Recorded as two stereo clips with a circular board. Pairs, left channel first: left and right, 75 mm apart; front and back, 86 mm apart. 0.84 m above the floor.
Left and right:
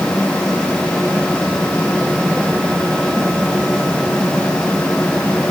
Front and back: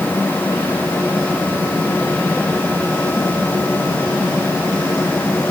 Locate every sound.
Only background noise.